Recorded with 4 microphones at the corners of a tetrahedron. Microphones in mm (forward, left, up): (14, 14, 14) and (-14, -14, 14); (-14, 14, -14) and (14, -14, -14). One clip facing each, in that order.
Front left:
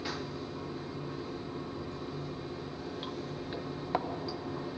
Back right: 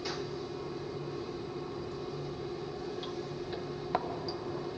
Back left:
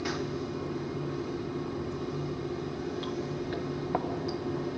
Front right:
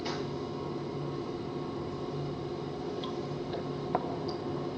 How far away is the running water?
About 4.5 m.